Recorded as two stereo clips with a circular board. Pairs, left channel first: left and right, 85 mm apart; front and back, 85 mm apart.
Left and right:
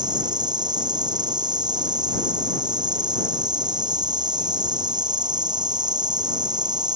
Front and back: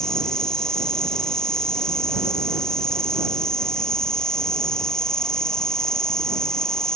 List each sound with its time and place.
0.0 s an insect: 80° right